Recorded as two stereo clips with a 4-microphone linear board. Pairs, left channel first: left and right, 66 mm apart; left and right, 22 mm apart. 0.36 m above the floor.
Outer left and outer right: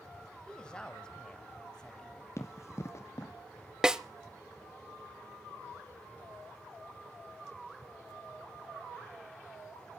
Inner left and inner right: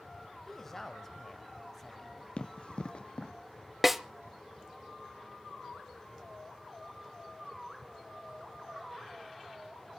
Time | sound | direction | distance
0.5 | a woman speaking | 15° left (ahead or behind) | 1.5 m
2.4 | running footsteps | 45° left (ahead or behind) | 1.0 m
3.8 | a snare drum | 10° right (ahead or behind) | 0.6 m